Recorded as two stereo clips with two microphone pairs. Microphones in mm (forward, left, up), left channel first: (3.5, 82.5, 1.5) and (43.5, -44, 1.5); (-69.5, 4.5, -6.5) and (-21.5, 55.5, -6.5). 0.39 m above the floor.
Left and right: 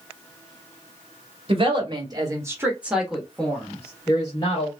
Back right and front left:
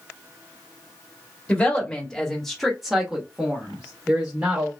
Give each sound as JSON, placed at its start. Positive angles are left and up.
{"t": 1.5, "sound": "a woman speaking", "azimuth_deg": -70, "distance_m": 1.4}